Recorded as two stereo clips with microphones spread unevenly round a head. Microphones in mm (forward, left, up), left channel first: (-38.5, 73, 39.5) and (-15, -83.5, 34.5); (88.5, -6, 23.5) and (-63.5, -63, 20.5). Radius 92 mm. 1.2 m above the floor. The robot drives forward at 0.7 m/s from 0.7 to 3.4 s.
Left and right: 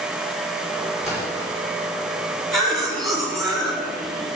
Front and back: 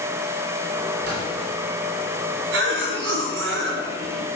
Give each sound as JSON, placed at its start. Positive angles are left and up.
{"t": 1.0, "sound": "a splash", "azimuth_deg": 170, "distance_m": 5.5}
{"t": 2.5, "sound": "a cough", "azimuth_deg": -170, "distance_m": 3.5}